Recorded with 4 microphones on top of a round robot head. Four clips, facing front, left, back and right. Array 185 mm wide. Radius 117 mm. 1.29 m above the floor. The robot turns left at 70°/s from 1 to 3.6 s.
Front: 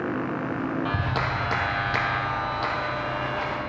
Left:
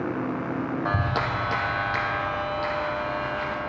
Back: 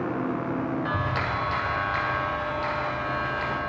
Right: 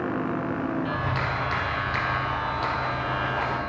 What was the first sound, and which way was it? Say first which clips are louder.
A clap: left 2 dB, even; 65° left.